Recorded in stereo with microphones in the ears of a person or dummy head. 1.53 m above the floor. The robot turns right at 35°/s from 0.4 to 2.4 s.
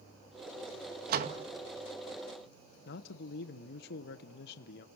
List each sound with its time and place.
1.1 s a door slam: 50° right (ahead or behind), 1.9 m; by 1.4 s 40° right (ahead or behind), 1.9 m
2.9 s a man speaking: 65° left (ahead or behind), 1.1 m